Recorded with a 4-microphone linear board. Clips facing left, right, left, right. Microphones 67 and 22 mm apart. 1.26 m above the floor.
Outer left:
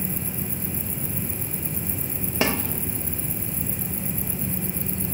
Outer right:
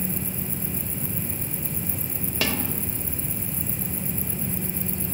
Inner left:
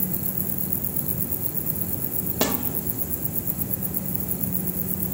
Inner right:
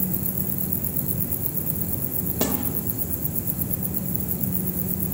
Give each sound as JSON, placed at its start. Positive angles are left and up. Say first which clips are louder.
{"t": 2.4, "sound": "a snare drum", "louder": "outer left 4 dB, inner left 1 dB", "side_deg": 25, "distance_m": 2.0}